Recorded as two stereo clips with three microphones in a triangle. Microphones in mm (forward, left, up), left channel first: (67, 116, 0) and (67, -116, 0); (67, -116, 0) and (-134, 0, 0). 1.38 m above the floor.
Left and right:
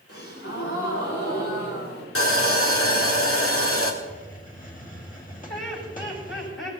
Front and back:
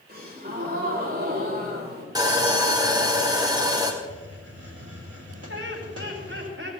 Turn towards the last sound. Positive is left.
turn(degrees=120)